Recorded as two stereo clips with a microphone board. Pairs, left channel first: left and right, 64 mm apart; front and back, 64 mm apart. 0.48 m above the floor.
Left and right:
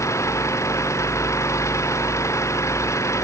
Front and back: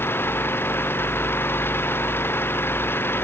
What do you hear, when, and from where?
0.0 s an engine running: 55° left